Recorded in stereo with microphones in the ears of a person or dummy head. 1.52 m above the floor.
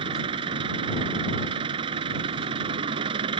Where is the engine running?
30° right (ahead or behind).